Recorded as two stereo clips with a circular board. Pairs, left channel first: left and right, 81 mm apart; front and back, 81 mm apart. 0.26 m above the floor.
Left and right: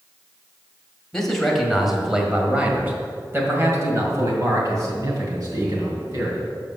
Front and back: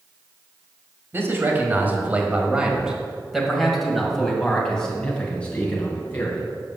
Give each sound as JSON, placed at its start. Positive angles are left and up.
{"t": 1.1, "sound": "a man speaking", "azimuth_deg": 170, "distance_m": 1.8}